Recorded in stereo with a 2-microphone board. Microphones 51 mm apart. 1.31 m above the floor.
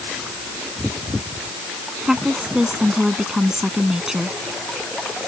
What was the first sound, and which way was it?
A woman speaking, 10° right (ahead or behind).